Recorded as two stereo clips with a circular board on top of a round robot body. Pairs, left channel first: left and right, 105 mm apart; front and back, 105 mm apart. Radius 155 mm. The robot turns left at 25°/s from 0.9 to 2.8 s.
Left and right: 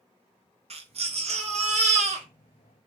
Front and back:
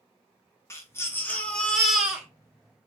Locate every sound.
0.7 s a baby crying: 65° right, 1.2 m; by 2.3 s 100° right, 1.2 m